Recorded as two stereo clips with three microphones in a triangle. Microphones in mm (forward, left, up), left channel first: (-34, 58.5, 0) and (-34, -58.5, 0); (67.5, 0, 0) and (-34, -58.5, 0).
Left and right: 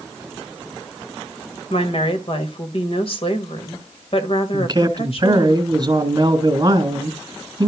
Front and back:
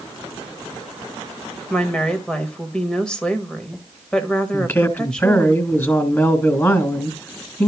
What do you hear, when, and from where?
1.7 s a woman speaking: 110° left, 2.5 m
4.5 s a man speaking: 35° right, 3 m